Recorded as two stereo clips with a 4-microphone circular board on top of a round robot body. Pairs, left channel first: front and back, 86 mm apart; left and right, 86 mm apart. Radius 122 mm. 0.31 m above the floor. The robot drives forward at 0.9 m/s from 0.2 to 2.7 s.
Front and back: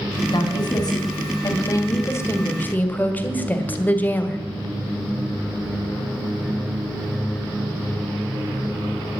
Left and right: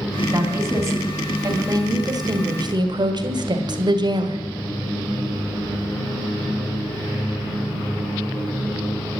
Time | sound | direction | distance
0.3 | a woman speaking | 30° right | 3.5 m